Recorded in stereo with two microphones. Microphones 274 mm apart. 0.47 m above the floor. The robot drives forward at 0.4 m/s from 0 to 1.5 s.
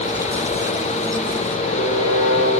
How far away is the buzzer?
About 7 m.